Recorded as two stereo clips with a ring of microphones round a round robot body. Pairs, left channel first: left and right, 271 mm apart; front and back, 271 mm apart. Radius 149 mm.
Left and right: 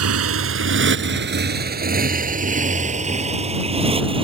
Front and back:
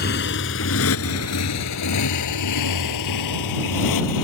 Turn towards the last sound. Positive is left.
turn(degrees=-20)